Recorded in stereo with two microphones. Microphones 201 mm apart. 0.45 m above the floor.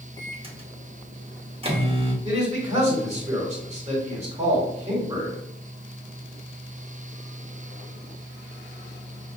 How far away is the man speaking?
About 1.7 m.